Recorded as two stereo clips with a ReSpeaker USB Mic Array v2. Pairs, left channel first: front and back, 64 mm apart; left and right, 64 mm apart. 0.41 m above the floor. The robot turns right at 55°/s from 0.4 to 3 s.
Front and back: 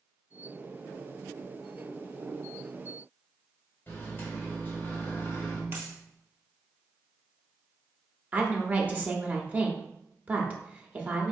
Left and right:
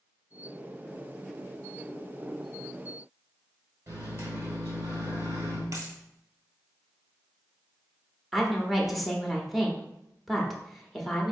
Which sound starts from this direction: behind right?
A dropped coin, at 5.7 s.